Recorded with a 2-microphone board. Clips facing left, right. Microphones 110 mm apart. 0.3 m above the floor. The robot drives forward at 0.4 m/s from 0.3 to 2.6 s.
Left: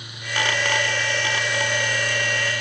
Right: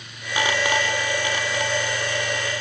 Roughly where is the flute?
I don't hear a flute.